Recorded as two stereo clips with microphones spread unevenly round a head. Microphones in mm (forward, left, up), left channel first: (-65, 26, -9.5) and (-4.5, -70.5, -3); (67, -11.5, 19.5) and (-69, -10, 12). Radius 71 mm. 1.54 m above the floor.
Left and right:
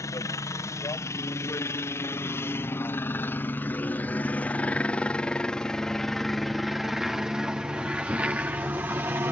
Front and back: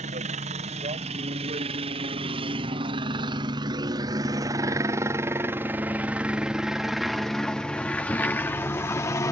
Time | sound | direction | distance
0.0 | a helicopter | 175° left | ?